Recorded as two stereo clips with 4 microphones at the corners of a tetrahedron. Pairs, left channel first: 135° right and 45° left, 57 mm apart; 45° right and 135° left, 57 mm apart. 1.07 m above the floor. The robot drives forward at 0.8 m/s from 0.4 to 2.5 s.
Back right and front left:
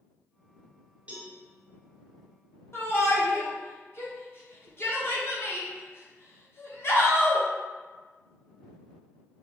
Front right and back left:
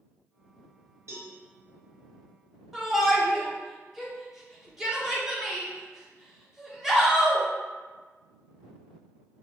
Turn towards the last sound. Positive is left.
turn(degrees=-140)